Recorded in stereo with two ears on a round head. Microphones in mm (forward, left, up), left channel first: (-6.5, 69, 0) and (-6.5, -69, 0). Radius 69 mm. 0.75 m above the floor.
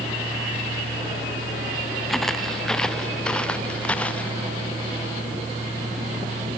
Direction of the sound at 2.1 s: Centre (ahead or behind).